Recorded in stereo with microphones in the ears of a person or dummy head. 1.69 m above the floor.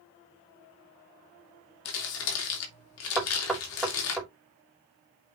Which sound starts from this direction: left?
Crumpling, at 1.9 s.